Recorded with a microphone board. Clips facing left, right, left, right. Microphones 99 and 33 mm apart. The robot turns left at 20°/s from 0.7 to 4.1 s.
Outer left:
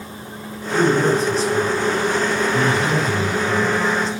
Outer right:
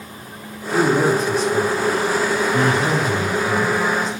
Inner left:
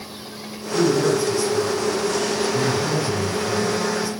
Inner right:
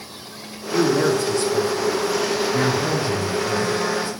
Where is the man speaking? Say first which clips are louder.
Even, even; 60° right, 3.5 m; by 4.1 s 130° right, 3.5 m.